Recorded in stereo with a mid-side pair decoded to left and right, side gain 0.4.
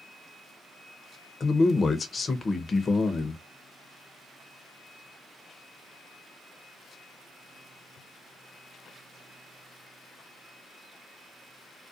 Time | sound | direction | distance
1.4 | a man speaking | 40° left | 0.8 m